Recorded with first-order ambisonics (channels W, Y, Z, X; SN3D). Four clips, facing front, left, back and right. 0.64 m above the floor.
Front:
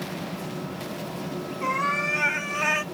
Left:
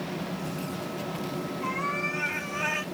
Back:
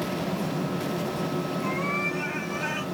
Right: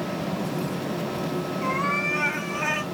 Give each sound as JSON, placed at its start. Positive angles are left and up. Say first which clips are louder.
{"t": 1.6, "sound": "a cat meowing", "louder": "right 5 dB, front 6 dB", "azimuth_deg": -20, "distance_m": 2.5}